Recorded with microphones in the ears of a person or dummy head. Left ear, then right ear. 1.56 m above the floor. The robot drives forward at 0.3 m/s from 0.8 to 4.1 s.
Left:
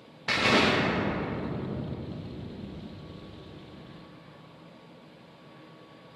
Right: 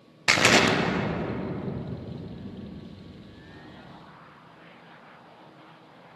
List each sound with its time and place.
0.3 s an explosion: 75° right (ahead or behind), 0.5 m; by 3.9 s 25° right (ahead or behind), 1.1 m